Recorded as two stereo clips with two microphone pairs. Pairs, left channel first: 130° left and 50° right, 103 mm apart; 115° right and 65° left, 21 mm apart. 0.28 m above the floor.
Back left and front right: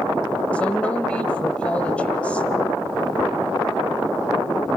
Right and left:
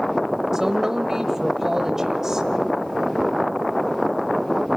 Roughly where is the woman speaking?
Left.